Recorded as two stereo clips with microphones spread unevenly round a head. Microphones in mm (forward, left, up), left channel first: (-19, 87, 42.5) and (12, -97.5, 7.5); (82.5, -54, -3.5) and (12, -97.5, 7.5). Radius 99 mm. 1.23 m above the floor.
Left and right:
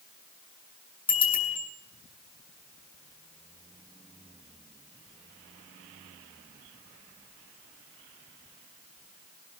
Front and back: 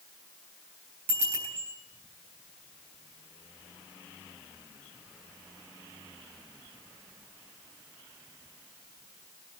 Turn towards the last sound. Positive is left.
turn(degrees=165)